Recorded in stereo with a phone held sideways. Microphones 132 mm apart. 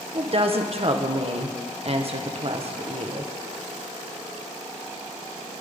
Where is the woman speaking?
45° right (ahead or behind), 1.4 m.